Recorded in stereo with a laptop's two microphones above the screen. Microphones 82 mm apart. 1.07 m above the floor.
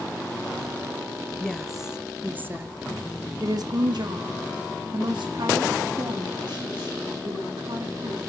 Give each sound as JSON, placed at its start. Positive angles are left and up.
{"t": 1.4, "sound": "a woman speaking", "side_deg": 5, "distance_m": 1.1}